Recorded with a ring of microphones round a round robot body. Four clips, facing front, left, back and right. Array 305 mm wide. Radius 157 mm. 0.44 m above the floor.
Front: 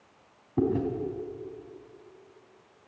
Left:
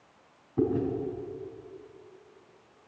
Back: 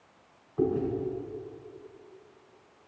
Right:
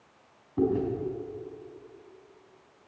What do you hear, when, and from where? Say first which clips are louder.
0.6 s chewing: right 1 dB, front 1 dB; 5° right, 3 m